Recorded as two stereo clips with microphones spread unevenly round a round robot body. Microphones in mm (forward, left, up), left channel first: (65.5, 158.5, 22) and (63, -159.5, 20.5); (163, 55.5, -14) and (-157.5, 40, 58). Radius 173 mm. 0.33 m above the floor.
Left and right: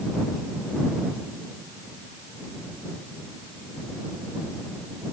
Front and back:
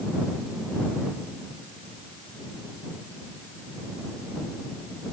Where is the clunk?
I don't hear a clunk.